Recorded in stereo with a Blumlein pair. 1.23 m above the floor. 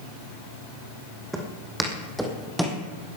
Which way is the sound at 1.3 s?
10° right.